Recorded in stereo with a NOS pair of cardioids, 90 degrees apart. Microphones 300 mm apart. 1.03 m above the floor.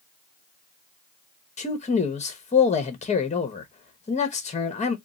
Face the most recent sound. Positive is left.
turn(degrees=25)